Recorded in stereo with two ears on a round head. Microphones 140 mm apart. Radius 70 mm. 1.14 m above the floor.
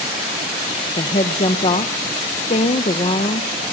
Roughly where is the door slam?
No door slam in this recording.